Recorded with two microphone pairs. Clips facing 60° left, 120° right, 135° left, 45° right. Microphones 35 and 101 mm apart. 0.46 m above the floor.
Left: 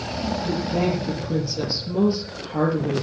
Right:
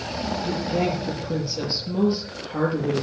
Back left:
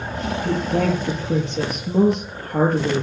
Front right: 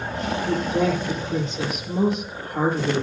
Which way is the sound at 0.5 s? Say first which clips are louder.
Left 1 dB, back left 1 dB; 160° left.